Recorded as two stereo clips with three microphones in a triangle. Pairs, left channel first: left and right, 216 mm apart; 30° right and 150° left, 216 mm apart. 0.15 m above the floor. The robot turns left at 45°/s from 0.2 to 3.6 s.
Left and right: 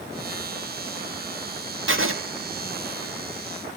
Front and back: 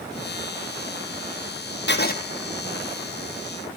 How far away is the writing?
About 1.5 m.